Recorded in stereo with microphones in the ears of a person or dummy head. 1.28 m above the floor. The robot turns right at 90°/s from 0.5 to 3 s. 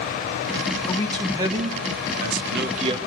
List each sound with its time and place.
0.9 s a man speaking: 150° left, 1.8 m; by 3.0 s 20° right, 1.8 m